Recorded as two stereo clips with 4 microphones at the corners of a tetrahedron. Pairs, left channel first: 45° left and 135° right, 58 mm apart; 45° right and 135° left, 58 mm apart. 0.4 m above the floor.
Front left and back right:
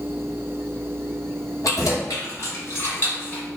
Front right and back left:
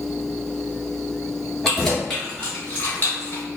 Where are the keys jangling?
45° left, 1.4 m; by 3.4 s 15° right, 0.9 m.